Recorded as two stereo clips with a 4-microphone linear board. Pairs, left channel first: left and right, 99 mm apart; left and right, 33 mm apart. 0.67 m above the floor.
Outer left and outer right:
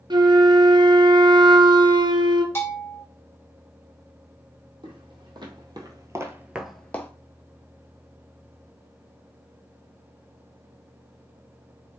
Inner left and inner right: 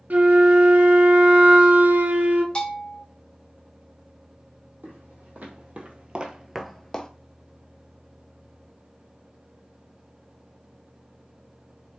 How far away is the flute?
About 0.6 m.